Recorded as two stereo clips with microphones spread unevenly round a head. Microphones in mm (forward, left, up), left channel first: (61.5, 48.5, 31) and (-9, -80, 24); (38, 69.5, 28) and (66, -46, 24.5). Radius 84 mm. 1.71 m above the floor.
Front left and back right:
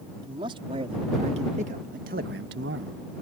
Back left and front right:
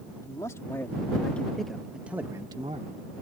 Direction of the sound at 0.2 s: 175° left.